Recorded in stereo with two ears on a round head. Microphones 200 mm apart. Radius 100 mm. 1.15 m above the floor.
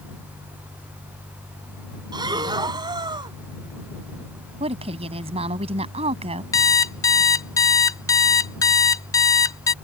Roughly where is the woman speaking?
Right.